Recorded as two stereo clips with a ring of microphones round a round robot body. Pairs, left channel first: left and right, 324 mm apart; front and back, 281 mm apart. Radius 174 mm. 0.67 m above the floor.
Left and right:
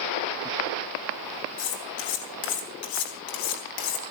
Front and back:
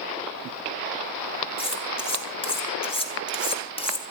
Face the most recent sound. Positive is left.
turn(degrees=70)